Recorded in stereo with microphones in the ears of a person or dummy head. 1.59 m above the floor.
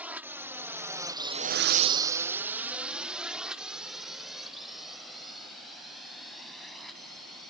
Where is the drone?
10° right (ahead or behind); by 7.5 s centre (ahead or behind).